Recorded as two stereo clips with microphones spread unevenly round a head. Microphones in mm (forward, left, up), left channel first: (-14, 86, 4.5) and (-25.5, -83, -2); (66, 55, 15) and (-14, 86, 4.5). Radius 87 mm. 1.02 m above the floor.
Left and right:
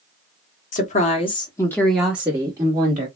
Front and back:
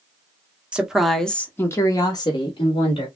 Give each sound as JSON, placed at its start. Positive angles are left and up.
{"t": 0.7, "sound": "a woman speaking", "azimuth_deg": 95, "distance_m": 0.9}